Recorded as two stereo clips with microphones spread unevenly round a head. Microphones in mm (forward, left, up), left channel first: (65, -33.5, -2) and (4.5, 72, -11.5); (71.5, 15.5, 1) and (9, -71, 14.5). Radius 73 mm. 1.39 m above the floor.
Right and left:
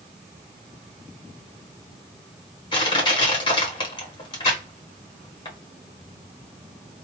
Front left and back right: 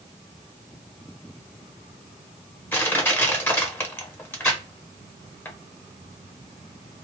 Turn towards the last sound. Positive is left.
turn(degrees=-10)